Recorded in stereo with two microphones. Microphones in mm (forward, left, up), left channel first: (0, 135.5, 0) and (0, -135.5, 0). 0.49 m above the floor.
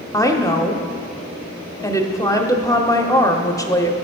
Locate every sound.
0.1 s a woman speaking: 10° left (ahead or behind), 0.8 m